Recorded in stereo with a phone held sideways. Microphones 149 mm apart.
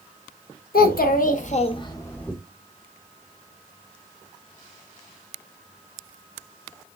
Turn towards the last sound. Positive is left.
turn(degrees=5)  # may be behind; listen again after turning